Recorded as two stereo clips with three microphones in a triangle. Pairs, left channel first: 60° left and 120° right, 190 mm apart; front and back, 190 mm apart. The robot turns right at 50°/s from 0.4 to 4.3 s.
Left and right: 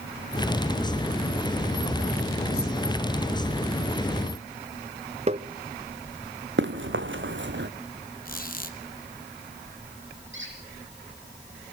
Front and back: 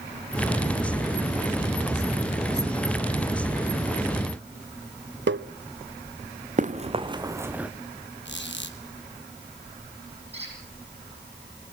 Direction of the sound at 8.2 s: 20° left.